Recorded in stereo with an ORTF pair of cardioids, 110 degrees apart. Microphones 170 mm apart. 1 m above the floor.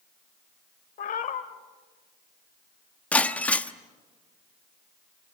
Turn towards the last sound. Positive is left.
turn(degrees=10)